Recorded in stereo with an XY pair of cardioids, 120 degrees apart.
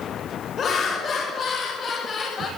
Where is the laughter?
45° left, 4 m; by 2.5 s 40° left, 5 m.